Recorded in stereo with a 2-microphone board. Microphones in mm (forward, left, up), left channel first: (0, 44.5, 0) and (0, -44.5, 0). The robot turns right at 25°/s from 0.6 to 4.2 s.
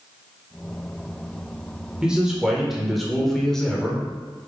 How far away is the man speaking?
About 0.9 m.